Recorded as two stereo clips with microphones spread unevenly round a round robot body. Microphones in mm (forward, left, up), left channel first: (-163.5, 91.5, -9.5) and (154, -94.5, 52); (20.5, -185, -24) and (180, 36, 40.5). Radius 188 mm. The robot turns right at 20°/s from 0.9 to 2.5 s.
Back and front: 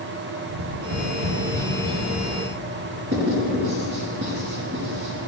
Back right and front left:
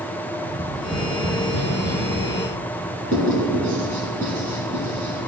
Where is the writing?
25° left, 4.5 m.